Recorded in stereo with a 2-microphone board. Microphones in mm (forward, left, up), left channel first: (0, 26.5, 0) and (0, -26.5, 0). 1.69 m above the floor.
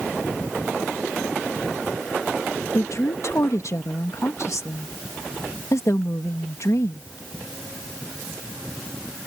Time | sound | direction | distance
2.8 | a woman speaking | 70° left (ahead or behind) | ?